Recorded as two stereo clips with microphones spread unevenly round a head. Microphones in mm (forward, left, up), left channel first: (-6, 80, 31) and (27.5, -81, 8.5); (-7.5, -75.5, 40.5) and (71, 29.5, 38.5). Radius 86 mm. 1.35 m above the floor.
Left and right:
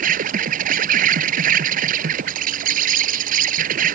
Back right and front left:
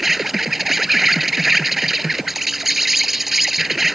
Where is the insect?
35° right.